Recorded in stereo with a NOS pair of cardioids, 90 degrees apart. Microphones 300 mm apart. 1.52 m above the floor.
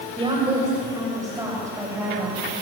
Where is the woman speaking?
15° right, 8 m; by 2.5 s 5° right, 8 m.